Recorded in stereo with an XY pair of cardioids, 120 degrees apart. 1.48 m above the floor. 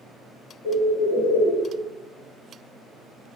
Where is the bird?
5° left, 1.1 m.